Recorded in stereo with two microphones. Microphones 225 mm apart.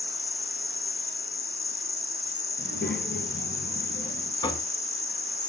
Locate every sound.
0.0 s an insect: 50° left (ahead or behind), 0.8 m
2.6 s a child speaking: 50° left (ahead or behind), 2.5 m
4.4 s knocking: 20° left (ahead or behind), 1.2 m